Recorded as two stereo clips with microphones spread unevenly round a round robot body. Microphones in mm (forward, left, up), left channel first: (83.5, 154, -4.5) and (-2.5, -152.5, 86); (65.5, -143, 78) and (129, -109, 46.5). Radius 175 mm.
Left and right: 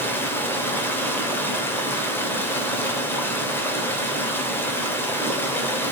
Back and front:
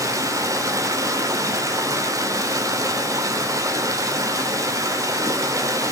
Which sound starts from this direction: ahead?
Running water, at 0.0 s.